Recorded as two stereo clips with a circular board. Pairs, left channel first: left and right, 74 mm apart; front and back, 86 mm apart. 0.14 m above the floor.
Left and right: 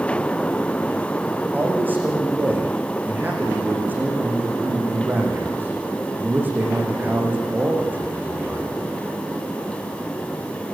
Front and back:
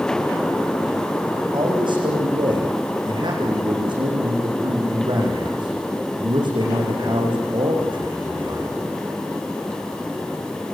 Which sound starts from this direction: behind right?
A man speaking, at 1.5 s.